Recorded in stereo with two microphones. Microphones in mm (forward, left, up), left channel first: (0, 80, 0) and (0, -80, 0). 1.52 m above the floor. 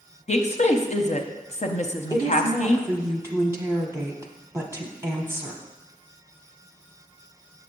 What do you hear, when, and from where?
0.3 s a woman speaking: 50° left (ahead or behind), 0.6 m
2.1 s a woman speaking: 15° right (ahead or behind), 0.8 m